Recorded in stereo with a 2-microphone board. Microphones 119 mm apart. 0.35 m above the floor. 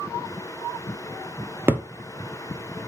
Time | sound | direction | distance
1.7 | a thud | 20° right (ahead or behind) | 0.7 m